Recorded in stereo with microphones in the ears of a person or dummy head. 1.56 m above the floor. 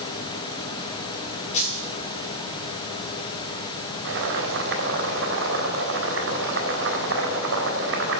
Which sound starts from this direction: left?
A dropped coin, at 1.5 s.